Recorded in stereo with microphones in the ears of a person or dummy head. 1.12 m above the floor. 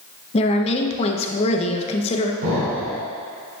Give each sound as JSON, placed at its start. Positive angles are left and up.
{"t": 0.3, "sound": "a woman speaking", "side_deg": 35, "distance_m": 0.8}
{"t": 2.4, "sound": "an explosion", "side_deg": -55, "distance_m": 2.5}